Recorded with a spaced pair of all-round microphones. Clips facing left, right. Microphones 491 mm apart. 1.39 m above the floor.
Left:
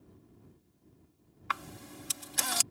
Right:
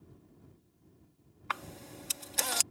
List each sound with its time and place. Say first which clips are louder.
1.5 s a camera shutter: even; 35° left (ahead or behind)